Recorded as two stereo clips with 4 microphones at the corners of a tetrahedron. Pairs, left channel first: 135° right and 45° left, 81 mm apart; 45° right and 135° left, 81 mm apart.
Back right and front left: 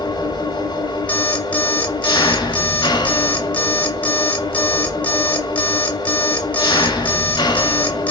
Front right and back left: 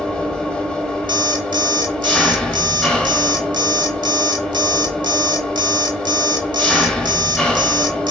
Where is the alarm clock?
155° left, 1.0 m.